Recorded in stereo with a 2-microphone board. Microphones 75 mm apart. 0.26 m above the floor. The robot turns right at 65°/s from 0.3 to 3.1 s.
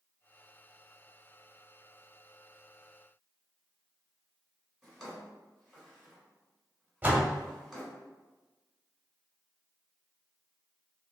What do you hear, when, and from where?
4.8 s a drawer: 5° right (ahead or behind), 1.6 m
7.0 s a door slam: 25° right (ahead or behind), 0.7 m